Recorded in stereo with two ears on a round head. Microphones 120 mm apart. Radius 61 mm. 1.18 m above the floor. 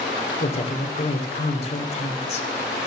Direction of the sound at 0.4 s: 50° left (ahead or behind).